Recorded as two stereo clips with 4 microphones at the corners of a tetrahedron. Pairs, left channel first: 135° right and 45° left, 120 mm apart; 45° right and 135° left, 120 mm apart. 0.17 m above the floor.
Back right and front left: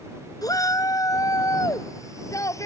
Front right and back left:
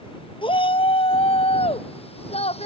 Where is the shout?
80° right; by 2.7 s 70° right.